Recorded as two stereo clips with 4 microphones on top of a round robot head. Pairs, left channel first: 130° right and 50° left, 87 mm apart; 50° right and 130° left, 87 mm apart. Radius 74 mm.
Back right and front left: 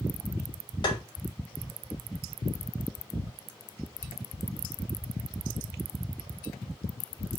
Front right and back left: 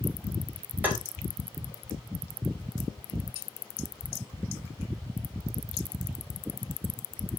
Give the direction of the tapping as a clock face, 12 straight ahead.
5 o'clock.